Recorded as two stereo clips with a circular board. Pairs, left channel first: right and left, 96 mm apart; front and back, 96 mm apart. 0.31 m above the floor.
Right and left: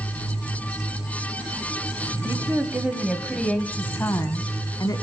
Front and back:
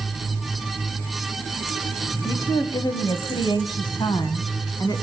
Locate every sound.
2.2 s a woman speaking: 40° left, 1.5 m; by 5.0 s 45° right, 2.5 m